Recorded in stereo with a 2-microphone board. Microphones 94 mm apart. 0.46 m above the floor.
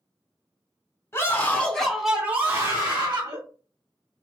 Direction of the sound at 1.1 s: 30° left (ahead or behind).